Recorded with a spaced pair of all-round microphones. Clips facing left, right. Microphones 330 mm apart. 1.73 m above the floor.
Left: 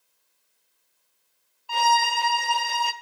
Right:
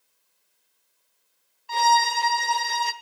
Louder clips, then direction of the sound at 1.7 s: Right 1 dB; 25° right (ahead or behind).